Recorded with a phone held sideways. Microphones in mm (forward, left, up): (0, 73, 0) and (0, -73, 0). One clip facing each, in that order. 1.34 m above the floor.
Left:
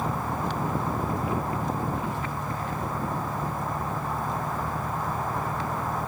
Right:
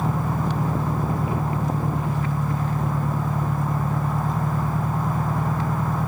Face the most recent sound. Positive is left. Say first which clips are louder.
# right 4 dB
turn(degrees=-70)  # may be behind; listen again after turning